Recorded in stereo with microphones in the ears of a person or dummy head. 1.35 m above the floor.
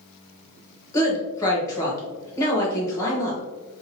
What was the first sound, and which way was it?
A woman speaking, 20° left (ahead or behind).